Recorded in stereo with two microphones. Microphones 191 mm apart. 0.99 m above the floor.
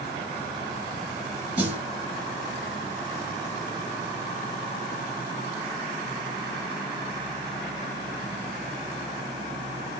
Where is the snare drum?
10° right (ahead or behind), 1.7 m.